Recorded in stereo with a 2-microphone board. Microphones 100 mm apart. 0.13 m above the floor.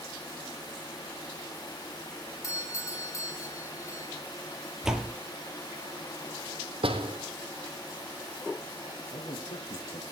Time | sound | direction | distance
2.4 | a doorbell | 30° left (ahead or behind) | 3 m
4.8 | a door slam | 5° right (ahead or behind) | 2.5 m
6.8 | a door slam | 65° right (ahead or behind) | 4 m
9.1 | a man speaking | 65° left (ahead or behind) | 3.5 m